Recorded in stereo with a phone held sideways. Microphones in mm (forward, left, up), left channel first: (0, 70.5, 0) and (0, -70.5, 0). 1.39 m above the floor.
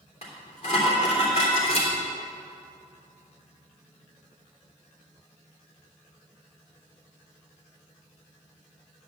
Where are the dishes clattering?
50° left (ahead or behind), 3 m.